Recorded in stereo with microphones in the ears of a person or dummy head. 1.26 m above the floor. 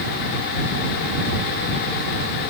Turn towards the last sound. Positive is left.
No sound to turn to.